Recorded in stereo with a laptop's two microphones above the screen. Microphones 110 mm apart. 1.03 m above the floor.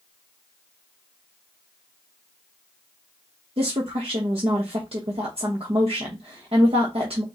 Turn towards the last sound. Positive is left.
turn(degrees=-60)  # may be behind; listen again after turning